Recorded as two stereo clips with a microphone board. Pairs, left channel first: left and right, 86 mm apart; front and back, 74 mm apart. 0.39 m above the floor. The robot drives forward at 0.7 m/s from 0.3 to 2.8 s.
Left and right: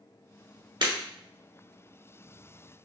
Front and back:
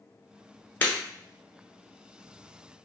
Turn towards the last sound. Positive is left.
turn(degrees=-135)